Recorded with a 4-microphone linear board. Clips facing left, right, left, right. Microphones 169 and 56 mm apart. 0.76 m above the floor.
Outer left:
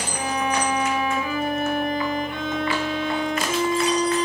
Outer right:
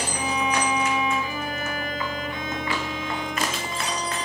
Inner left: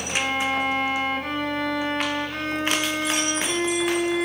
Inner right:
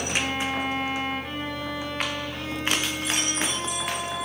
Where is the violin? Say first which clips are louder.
Outer left 2 dB, inner left 5 dB; 70° left (ahead or behind), 2.0 m.